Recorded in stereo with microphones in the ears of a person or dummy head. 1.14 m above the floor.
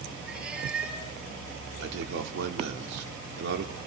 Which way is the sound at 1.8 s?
65° right (ahead or behind).